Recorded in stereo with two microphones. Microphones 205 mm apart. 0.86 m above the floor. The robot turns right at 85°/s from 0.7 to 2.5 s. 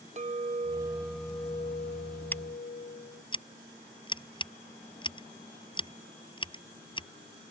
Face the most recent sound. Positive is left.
turn(degrees=25)  # may be behind; listen again after turning